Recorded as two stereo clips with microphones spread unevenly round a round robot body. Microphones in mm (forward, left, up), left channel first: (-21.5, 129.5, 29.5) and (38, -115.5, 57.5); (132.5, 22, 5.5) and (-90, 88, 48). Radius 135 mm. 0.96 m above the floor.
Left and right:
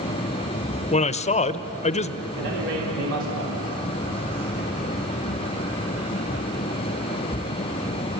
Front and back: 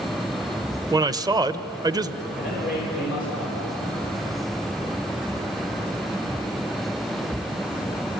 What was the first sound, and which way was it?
A man speaking, 85° left.